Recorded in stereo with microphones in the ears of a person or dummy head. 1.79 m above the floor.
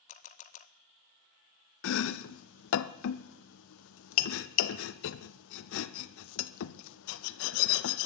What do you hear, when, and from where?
0.1 s a camera shutter: 40° left (ahead or behind), 0.9 m
1.8 s chopping: 65° left (ahead or behind), 0.6 m